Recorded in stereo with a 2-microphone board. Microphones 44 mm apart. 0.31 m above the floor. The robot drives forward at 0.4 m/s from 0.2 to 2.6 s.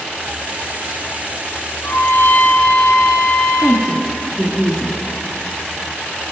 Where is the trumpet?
60° left (ahead or behind), 1.9 m; by 3.9 s 70° left (ahead or behind), 1.7 m.